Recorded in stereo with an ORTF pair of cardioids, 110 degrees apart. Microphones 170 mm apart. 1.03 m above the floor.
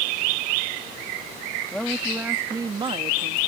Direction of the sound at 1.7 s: 5° left.